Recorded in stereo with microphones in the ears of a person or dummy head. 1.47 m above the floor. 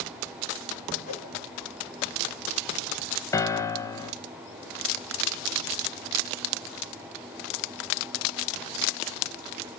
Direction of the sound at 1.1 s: 45° left (ahead or behind).